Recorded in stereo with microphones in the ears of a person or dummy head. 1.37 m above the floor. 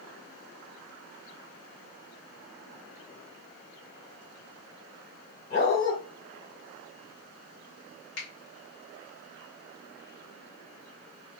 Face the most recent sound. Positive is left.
turn(degrees=55)  # may be behind; listen again after turning